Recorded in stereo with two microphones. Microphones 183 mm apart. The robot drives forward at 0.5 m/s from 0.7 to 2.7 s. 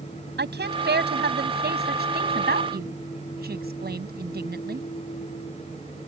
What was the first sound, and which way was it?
A woman speaking, 70° right (ahead or behind).